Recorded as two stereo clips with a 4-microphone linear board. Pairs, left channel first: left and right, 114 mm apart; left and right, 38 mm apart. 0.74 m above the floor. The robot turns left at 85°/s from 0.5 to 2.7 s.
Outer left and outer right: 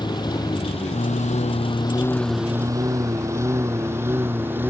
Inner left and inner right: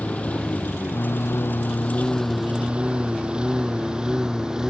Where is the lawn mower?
40° left (ahead or behind); by 4.7 s 20° right (ahead or behind).